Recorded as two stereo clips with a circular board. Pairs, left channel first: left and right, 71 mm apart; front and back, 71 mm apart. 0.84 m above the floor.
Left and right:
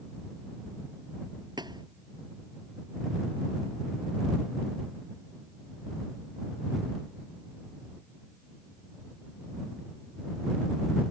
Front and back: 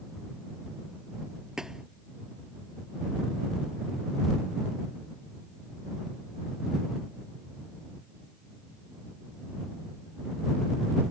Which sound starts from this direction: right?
A thud, at 1.6 s.